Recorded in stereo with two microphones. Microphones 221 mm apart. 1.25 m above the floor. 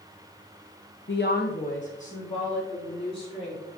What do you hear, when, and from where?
1.1 s a woman speaking: 60° left (ahead or behind), 0.6 m; by 3.7 s 25° left (ahead or behind), 4 m